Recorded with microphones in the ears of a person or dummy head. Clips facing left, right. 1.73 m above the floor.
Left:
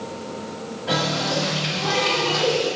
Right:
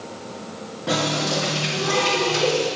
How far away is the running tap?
About 2.5 m.